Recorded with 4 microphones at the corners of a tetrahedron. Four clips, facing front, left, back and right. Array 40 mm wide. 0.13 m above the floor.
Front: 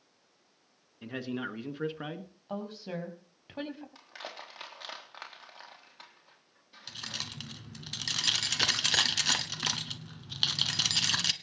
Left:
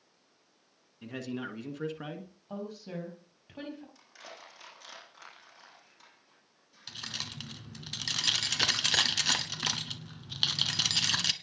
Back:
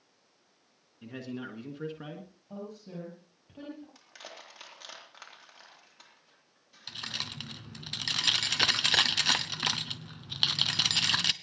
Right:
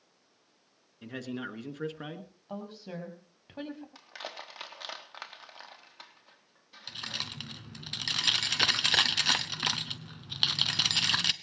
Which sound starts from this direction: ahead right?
Crushing, at 4.0 s.